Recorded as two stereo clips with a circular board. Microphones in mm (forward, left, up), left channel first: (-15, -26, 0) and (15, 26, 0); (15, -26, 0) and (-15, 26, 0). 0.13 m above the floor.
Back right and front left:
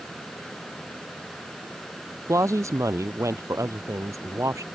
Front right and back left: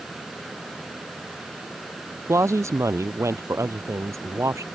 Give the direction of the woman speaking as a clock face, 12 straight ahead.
9 o'clock.